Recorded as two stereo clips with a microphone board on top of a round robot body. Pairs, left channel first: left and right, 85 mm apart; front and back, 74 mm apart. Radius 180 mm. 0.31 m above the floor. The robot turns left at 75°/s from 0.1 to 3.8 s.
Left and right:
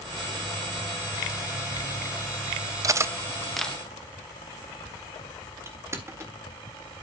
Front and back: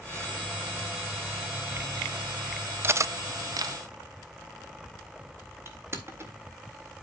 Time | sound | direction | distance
2.8 | cutlery clinking | 125° right | 0.6 m
5.7 | crushing | 135° right | 1.9 m